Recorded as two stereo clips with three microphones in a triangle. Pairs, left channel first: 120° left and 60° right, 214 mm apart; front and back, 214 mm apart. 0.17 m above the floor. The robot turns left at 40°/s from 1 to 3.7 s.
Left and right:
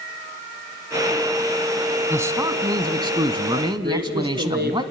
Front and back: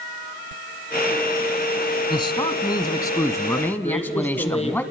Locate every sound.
2.1 s a man speaking: straight ahead, 1.0 m; by 4.8 s 65° right, 1.0 m
3.8 s a woman speaking: 50° right, 2.5 m